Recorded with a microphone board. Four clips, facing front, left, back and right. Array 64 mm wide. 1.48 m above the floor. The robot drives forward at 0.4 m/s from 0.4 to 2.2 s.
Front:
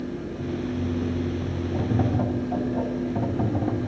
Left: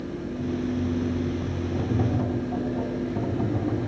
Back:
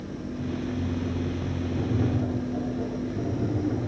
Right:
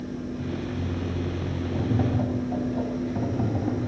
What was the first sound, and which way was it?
Tapping, 20° right.